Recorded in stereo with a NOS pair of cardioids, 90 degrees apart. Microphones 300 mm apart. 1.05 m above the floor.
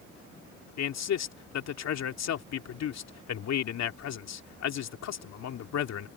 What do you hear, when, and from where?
0.8 s a man speaking: 60° left